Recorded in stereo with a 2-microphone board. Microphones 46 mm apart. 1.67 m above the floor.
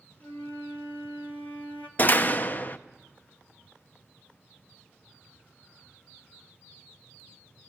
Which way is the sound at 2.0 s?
40° left (ahead or behind).